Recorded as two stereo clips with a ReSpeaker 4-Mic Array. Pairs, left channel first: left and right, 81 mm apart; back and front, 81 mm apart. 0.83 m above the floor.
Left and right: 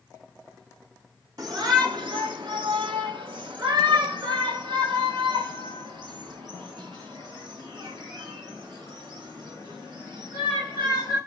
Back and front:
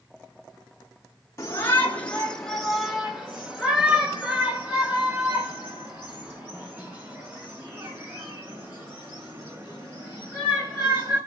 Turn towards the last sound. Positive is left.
turn(degrees=-55)